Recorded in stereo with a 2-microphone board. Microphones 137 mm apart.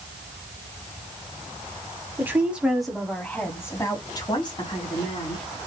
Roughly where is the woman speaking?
Centre.